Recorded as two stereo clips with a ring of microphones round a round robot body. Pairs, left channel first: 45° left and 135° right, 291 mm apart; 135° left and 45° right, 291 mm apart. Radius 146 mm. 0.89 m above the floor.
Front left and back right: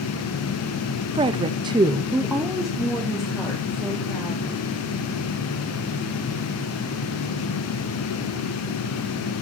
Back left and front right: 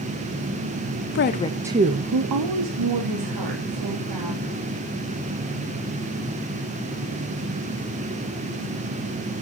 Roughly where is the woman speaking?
Behind.